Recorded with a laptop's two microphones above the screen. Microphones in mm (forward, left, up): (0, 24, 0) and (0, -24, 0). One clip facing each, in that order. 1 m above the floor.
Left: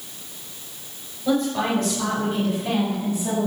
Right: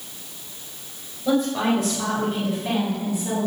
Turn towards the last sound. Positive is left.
turn(degrees=15)  # may be behind; listen again after turning